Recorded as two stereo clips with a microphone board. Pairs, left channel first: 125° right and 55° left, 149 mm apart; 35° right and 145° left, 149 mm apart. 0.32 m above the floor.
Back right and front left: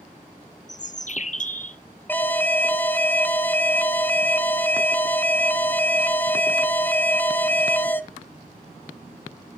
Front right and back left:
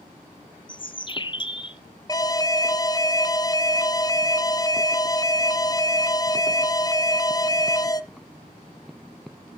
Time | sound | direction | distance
0.7 | a bird | 90° right | 0.7 m
2.1 | an alarm | 60° right | 0.7 m